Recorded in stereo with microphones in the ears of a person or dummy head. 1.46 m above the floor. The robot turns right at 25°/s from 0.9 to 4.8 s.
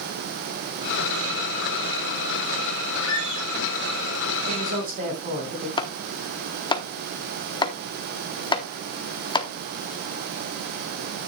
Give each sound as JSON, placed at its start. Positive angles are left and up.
{"t": 3.0, "sound": "a squeak", "side_deg": 65, "distance_m": 2.5}
{"t": 4.5, "sound": "a woman speaking", "side_deg": -40, "distance_m": 5.5}
{"t": 5.8, "sound": "chopping", "side_deg": 15, "distance_m": 1.0}